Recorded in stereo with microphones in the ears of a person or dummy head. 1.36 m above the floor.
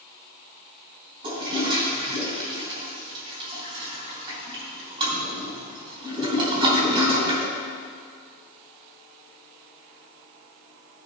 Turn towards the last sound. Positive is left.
turn(degrees=-30)  # may be behind; listen again after turning